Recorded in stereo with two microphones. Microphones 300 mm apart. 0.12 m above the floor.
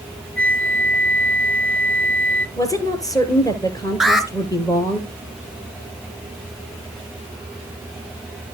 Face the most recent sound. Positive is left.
turn(degrees=0)  # may be behind; listen again after turning